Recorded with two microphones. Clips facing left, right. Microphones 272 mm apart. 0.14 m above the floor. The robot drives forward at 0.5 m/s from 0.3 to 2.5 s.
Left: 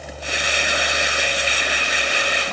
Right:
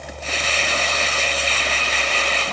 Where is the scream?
No scream in this recording.